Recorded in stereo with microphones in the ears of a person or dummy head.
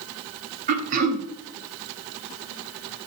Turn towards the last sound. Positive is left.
turn(degrees=-45)  # may be behind; listen again after turning